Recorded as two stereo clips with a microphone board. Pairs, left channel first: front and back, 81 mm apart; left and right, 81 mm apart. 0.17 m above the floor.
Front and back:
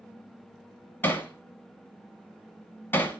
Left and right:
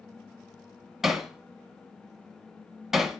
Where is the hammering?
10° right, 1.2 m.